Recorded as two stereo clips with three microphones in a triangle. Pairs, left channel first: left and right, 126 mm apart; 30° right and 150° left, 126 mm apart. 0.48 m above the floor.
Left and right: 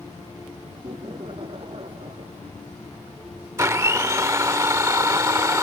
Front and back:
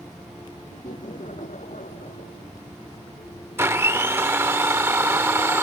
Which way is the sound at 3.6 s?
145° right.